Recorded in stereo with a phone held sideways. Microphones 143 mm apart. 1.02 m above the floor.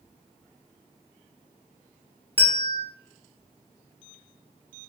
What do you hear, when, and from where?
2.4 s a bell: 15° left (ahead or behind), 0.7 m